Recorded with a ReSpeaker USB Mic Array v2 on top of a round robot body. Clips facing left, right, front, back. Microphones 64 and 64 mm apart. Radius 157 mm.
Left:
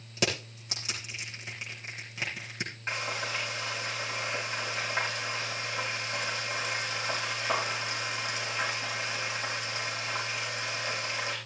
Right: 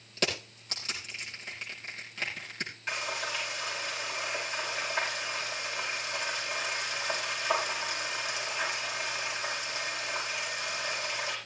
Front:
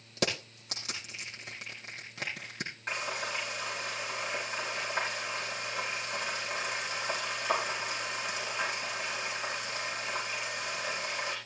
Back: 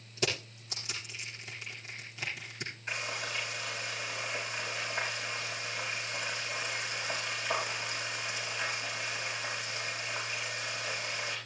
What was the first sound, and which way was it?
Crushing, 10° left.